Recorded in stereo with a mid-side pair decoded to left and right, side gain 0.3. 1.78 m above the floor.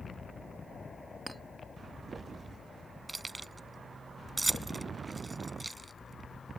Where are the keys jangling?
25° right.